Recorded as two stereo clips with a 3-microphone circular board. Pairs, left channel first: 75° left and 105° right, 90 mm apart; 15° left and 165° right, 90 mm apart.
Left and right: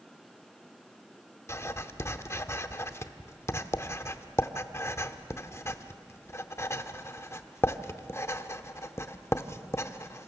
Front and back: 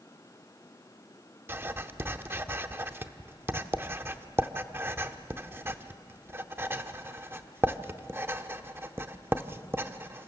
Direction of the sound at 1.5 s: 130° left.